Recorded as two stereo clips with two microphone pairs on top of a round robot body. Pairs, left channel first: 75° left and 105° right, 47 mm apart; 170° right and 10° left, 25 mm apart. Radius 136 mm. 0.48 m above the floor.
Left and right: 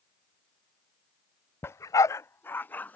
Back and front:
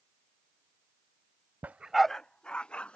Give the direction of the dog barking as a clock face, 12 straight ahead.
11 o'clock.